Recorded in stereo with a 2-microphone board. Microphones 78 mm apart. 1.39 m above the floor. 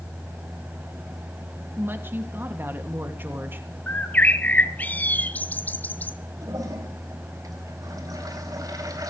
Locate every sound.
1.8 s a woman speaking: 25° right (ahead or behind), 2.5 m
3.9 s a bird: 20° left (ahead or behind), 1.2 m
6.4 s a toilet flushing: 50° right (ahead or behind), 4 m